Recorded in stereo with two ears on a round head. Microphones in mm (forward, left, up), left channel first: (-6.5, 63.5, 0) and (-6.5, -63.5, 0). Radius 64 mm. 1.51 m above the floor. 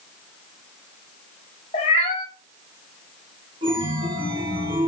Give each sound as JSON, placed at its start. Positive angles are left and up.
{"t": 1.7, "sound": "a cat meowing", "side_deg": 40, "distance_m": 0.9}
{"t": 3.6, "sound": "a chime", "side_deg": -35, "distance_m": 1.2}